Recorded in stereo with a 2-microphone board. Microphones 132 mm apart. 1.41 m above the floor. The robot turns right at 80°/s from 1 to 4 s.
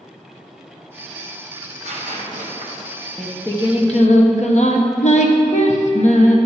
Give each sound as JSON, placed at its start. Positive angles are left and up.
{"t": 1.6, "sound": "tearing paper", "azimuth_deg": -145, "distance_m": 1.3}
{"t": 3.2, "sound": "singing", "azimuth_deg": -5, "distance_m": 0.8}